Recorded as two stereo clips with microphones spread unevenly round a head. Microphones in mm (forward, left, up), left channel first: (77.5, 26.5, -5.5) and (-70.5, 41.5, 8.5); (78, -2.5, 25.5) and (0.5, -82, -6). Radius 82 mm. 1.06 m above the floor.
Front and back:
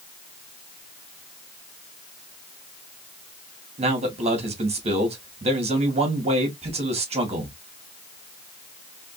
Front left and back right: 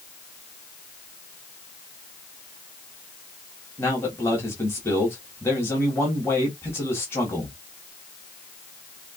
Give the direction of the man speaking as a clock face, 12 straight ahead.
8 o'clock.